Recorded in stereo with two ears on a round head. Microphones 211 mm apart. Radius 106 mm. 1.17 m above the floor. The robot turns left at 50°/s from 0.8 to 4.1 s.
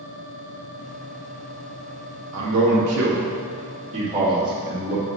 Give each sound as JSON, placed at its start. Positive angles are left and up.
{"t": 2.3, "sound": "a man speaking", "side_deg": -70, "distance_m": 1.7}